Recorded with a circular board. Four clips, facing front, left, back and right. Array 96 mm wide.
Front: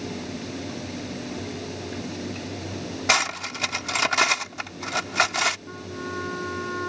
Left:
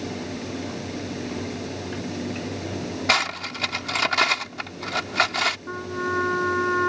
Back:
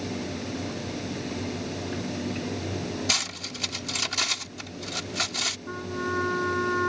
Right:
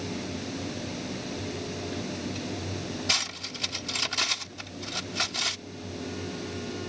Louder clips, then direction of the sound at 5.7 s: Left 10 dB, back 3 dB; 105° left.